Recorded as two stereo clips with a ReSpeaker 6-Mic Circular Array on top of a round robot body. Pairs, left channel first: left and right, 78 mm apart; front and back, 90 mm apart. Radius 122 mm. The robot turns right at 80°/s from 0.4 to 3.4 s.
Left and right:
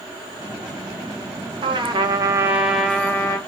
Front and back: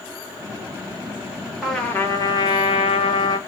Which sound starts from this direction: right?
A trumpet, at 1.6 s.